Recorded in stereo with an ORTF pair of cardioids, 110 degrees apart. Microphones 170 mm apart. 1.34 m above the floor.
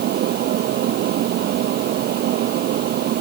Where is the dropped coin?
I don't hear a dropped coin.